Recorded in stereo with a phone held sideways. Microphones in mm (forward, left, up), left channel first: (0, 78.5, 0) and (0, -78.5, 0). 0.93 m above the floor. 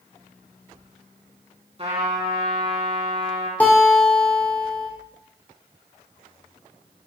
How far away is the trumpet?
About 3 m.